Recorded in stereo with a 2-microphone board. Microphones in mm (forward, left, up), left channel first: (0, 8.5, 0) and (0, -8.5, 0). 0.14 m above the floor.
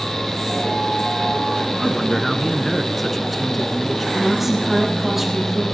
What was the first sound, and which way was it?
A man speaking, 5° left (ahead or behind).